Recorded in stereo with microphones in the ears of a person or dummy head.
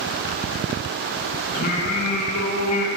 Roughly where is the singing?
Left.